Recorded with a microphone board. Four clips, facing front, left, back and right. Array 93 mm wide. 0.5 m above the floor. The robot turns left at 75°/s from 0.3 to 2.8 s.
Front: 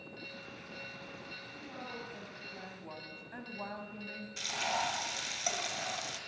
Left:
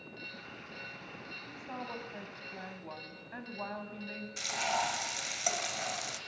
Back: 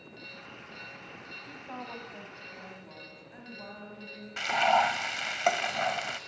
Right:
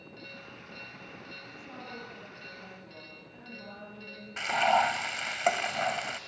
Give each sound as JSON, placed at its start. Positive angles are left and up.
{"t": 1.5, "sound": "a woman speaking", "azimuth_deg": 165, "distance_m": 4.0}
{"t": 4.4, "sound": "frying", "azimuth_deg": -140, "distance_m": 1.4}